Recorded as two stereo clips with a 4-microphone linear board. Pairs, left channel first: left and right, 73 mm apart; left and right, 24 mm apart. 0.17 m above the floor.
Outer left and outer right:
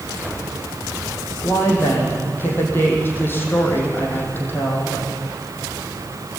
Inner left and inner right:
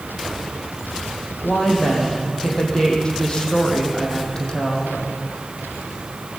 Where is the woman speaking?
30° left (ahead or behind), 5.5 m.